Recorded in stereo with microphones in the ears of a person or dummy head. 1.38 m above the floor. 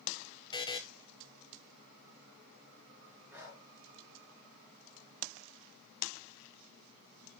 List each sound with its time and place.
0.5 s a buzzer: 20° left (ahead or behind), 0.7 m
3.3 s breathing: 20° right (ahead or behind), 5 m